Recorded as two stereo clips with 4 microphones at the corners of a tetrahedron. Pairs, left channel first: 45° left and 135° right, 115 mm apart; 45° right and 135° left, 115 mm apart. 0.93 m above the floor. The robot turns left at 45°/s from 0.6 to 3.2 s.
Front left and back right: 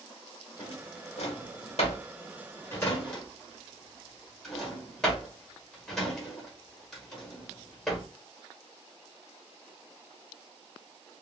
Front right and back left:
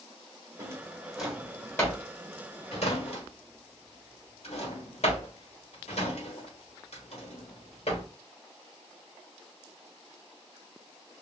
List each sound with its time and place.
0.6 s a drawer: 75° left, 1.2 m; by 8.1 s 40° right, 1.2 m